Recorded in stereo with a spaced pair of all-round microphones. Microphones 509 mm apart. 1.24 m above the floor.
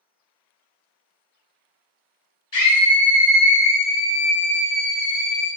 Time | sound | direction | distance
2.5 | a scream | 55° left (ahead or behind) | 1.0 m